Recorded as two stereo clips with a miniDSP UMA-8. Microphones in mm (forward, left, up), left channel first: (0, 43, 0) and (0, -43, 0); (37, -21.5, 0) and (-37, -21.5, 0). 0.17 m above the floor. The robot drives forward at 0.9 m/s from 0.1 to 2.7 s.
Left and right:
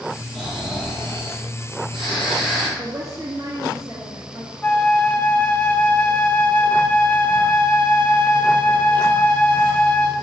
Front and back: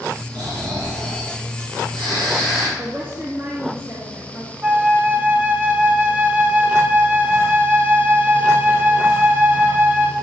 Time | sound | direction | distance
0.3 | snoring | 175° right | 4 m
2.8 | a woman speaking | 130° right | 1.9 m
4.6 | a flute | 145° left | 0.9 m